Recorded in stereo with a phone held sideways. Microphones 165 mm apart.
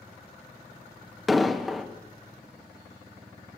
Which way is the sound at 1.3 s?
Centre (ahead or behind).